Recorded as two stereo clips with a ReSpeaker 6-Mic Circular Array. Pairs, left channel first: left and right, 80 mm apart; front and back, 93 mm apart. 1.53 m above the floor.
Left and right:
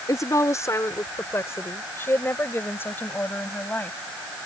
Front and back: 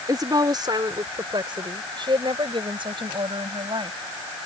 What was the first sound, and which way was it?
A woman speaking, 135° left.